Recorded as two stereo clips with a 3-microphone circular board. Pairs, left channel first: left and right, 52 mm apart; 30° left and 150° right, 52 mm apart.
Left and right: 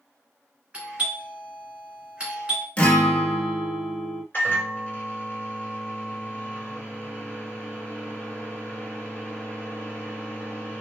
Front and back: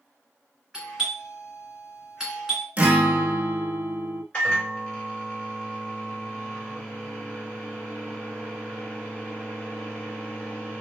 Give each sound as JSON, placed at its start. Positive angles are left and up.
{"t": 0.7, "sound": "a doorbell", "azimuth_deg": -90, "distance_m": 1.5}
{"t": 2.8, "sound": "a guitar", "azimuth_deg": 155, "distance_m": 0.6}
{"t": 4.3, "sound": "a microwave", "azimuth_deg": 85, "distance_m": 1.5}